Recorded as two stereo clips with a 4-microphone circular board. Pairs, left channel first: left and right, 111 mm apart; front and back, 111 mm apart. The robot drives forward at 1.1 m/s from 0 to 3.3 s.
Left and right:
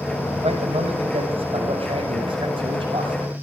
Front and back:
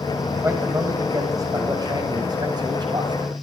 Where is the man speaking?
115° right, 7 m; by 3.3 s 135° right, 8.5 m.